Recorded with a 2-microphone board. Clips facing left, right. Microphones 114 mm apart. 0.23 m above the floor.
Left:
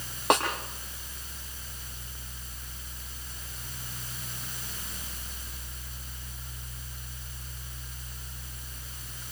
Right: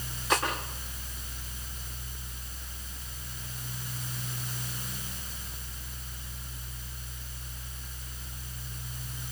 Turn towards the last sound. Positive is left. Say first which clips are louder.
# left 4 dB
turn(degrees=80)